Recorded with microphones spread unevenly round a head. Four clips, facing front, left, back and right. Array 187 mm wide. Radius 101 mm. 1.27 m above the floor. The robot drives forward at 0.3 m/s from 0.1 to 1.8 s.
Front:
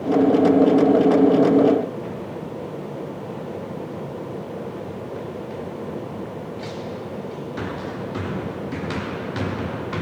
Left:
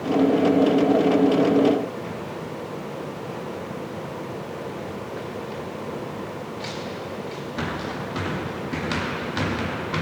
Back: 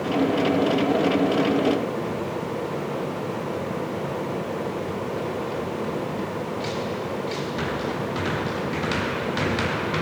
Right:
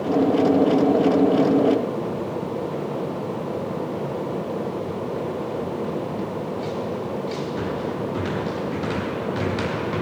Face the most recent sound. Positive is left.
No sound to turn to.